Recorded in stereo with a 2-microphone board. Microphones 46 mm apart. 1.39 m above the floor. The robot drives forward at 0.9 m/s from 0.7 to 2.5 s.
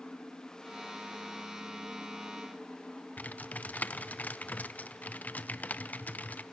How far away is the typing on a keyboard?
About 0.5 m.